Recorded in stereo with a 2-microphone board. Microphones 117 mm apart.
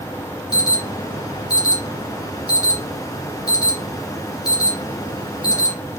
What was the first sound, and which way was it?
An alarm, 35° left (ahead or behind).